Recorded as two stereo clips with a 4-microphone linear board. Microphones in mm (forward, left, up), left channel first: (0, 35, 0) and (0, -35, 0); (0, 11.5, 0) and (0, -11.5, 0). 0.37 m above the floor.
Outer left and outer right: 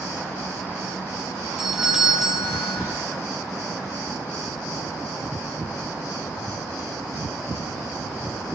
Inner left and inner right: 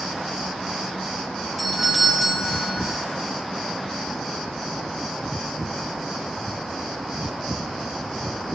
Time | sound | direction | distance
1.6 | a doorbell | 5° right (ahead or behind) | 2 m